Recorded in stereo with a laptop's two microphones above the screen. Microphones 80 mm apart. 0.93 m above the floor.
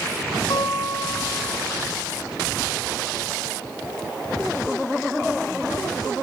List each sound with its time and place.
0.5 s a guitar: 75° left (ahead or behind), 4 m